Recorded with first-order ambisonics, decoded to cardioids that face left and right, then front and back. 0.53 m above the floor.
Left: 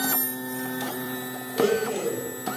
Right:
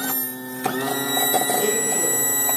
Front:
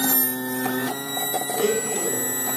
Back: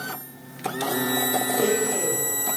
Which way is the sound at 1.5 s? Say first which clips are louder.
Right 1 dB, front 2 dB; 5° right.